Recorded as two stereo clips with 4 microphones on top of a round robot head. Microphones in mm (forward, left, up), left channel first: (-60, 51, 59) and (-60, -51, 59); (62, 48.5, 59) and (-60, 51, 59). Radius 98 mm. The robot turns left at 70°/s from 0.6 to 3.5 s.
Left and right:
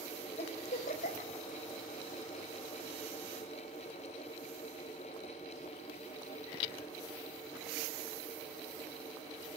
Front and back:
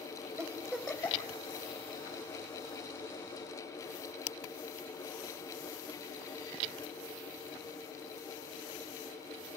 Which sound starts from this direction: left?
A giggle, at 0.4 s.